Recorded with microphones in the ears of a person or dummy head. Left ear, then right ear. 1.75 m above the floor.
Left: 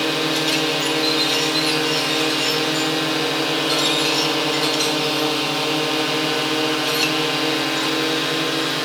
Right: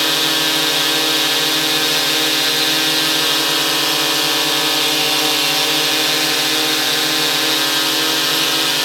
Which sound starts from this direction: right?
A drone, at 0.0 s.